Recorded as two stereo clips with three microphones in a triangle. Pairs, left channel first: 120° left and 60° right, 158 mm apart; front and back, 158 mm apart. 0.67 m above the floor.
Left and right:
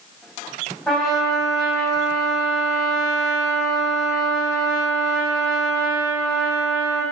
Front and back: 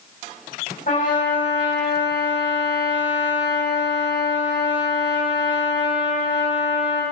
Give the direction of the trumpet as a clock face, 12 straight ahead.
11 o'clock.